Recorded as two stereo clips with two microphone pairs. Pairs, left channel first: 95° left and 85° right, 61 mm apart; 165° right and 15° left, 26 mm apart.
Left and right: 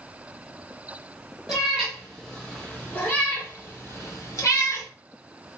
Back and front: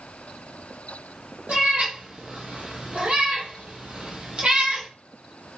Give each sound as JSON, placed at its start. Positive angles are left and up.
{"t": 1.5, "sound": "a cat meowing", "azimuth_deg": 0, "distance_m": 1.6}